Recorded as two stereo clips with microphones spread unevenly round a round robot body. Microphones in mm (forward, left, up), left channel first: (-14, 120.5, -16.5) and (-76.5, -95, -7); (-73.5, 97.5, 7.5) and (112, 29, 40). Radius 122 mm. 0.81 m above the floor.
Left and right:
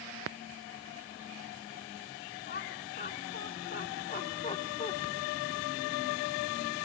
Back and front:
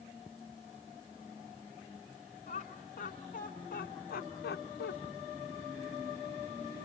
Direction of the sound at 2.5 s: 110° left.